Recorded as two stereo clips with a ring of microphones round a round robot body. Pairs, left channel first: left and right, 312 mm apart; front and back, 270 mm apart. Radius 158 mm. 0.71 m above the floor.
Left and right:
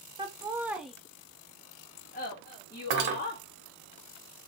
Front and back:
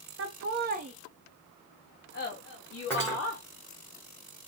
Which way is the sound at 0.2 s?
165° right.